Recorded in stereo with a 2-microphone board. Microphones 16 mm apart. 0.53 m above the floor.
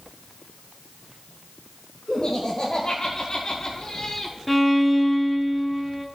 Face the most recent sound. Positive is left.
turn(degrees=5)  # may be behind; listen again after turning